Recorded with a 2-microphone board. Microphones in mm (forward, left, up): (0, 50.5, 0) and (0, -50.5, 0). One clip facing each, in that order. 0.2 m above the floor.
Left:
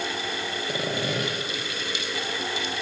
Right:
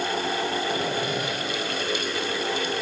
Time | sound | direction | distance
0.7 | sawing | 75° left (ahead or behind) | 5.5 m